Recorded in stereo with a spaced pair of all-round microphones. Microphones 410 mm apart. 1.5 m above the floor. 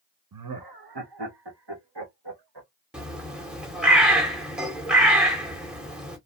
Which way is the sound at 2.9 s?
Centre (ahead or behind).